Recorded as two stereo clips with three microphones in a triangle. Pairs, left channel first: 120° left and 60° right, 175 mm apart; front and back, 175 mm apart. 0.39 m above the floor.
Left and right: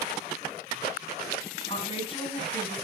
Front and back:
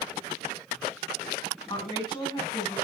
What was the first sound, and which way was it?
A woman speaking, 65° left.